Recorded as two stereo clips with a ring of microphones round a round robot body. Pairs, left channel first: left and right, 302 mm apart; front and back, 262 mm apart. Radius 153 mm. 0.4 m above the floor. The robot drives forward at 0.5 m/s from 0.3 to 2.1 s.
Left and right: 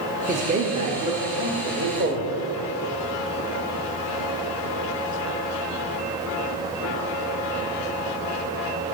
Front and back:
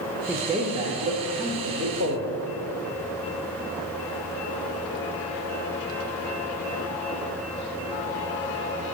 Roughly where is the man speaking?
Right.